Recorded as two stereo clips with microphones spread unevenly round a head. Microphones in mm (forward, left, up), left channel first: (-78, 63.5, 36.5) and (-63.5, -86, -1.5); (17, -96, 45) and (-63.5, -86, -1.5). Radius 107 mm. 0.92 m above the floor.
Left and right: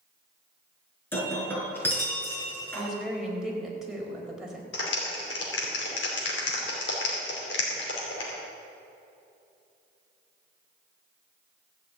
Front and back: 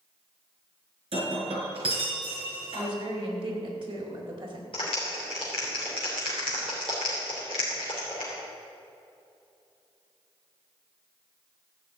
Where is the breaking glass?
170° left, 4.5 m.